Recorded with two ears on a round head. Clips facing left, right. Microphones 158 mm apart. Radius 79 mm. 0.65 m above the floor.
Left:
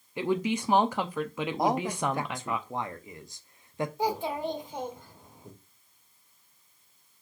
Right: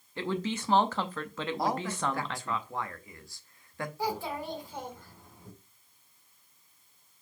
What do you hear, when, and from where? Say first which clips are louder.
0.2 s a woman speaking: left 5 dB; 10° left (ahead or behind), 0.5 m
1.6 s a man speaking: left 4 dB; 20° left (ahead or behind), 0.7 m
4.0 s a child speaking: left 3 dB; 20° left (ahead or behind), 1.7 m